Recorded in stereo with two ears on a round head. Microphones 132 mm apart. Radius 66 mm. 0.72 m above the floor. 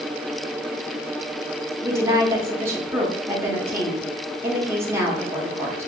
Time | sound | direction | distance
1.8 | a woman speaking | 15° right (ahead or behind) | 1.1 m